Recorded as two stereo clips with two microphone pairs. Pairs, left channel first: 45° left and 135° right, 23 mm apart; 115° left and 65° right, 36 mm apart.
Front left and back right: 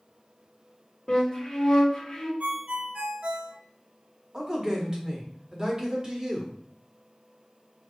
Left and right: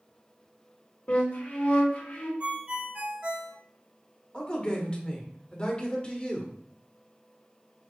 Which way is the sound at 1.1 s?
100° left.